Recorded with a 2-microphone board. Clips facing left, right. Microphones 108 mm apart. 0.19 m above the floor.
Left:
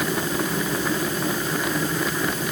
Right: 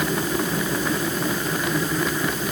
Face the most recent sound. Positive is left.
No sound to turn to.